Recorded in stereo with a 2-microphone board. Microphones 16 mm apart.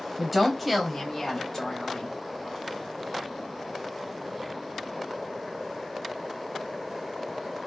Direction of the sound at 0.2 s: 10° right (ahead or behind).